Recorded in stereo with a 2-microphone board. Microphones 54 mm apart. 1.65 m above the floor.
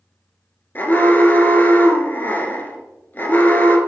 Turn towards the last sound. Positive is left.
turn(degrees=40)  # may be behind; listen again after turning